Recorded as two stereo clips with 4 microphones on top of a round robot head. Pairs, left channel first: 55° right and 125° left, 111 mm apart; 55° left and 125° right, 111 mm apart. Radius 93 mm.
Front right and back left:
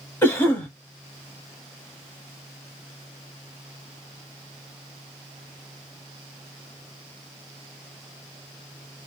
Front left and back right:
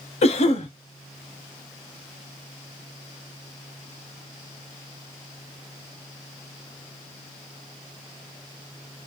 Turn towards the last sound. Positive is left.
turn(degrees=15)